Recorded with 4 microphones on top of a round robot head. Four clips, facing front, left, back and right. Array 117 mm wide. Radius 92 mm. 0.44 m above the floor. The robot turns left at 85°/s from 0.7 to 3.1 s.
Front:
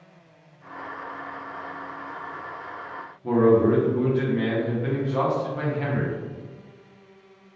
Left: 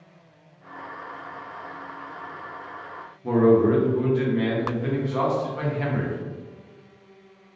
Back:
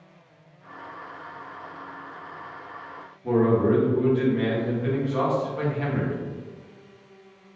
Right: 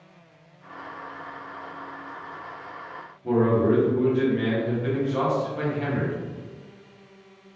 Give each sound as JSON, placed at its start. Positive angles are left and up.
{"t": 3.2, "sound": "a man speaking", "azimuth_deg": 60, "distance_m": 1.0}